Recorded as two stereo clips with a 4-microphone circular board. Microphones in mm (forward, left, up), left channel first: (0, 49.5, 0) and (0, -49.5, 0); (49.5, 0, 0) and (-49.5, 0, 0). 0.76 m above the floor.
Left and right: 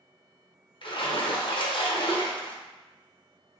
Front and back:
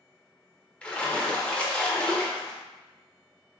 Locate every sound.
0.8 s a splash: 75° left, 0.6 m